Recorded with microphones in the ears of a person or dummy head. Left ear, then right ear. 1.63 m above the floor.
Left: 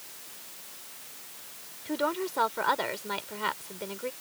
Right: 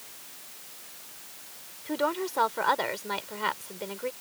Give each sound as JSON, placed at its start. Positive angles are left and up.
{"t": 1.9, "sound": "a woman speaking", "side_deg": -10}